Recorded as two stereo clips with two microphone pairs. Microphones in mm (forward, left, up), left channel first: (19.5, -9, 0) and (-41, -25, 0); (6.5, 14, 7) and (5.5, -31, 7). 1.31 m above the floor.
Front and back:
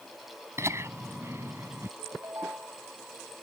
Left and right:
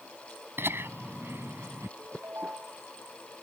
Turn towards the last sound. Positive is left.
turn(degrees=-120)